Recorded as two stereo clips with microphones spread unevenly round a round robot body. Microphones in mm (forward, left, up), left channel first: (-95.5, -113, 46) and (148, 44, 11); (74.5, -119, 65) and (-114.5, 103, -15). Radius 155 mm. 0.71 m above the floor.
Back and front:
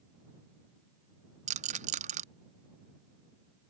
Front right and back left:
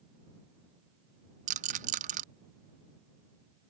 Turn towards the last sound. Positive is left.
turn(degrees=85)